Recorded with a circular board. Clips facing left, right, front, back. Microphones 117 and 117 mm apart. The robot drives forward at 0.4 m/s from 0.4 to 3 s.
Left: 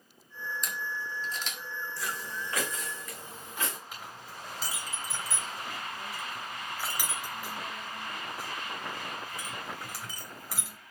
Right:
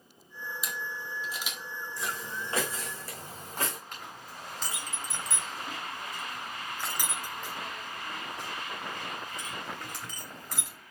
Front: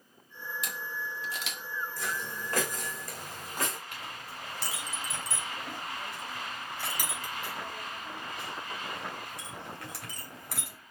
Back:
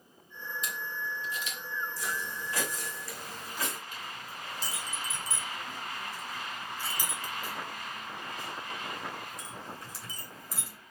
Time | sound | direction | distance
0.6 | a camera shutter | 10° right | 1.8 m
2.0 | footsteps | 25° right | 2.5 m
3.9 | a clink | 5° left | 3 m